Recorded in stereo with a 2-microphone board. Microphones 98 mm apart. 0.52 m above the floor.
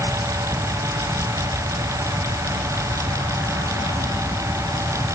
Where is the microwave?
No microwave in this recording.